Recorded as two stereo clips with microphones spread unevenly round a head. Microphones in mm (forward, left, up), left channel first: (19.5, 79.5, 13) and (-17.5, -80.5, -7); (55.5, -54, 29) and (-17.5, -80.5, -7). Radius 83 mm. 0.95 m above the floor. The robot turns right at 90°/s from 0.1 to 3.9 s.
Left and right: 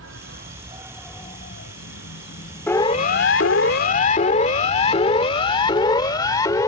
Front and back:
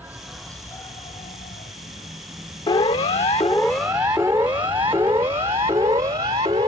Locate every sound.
0.0 s an insect: 90° right; by 6.7 s 110° right
2.7 s a siren: 5° right; by 6.7 s 150° left